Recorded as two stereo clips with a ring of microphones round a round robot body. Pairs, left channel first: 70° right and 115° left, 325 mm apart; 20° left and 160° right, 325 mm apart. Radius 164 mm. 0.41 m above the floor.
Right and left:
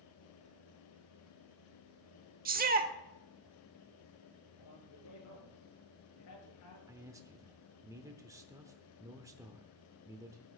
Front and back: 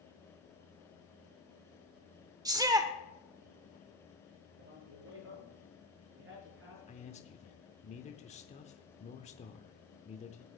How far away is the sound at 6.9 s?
About 0.8 m.